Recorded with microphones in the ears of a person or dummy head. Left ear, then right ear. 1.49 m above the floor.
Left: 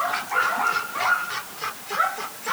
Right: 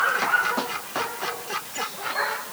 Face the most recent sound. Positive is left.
No sound to turn to.